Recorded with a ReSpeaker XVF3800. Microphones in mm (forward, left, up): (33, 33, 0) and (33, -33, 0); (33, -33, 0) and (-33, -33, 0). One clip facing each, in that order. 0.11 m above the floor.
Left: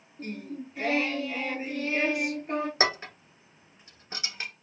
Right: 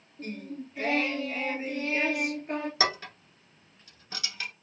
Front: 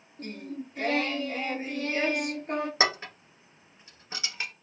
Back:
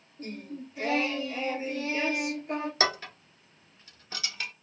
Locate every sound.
0.2 s singing: 5° left, 1.1 m
2.8 s dishes clattering: 45° left, 1.1 m